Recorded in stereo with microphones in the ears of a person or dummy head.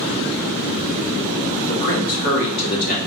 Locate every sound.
1.7 s a man speaking: 60° left (ahead or behind), 1.7 m; by 3.0 s 50° left (ahead or behind), 2.5 m